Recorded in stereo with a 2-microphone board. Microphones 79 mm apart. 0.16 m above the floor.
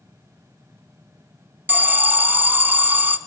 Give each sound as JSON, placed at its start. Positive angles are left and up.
{"t": 1.7, "sound": "an alarm", "side_deg": -25, "distance_m": 0.8}